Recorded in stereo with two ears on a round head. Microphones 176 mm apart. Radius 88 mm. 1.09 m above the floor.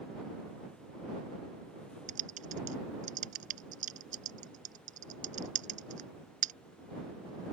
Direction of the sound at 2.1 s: 40° right (ahead or behind).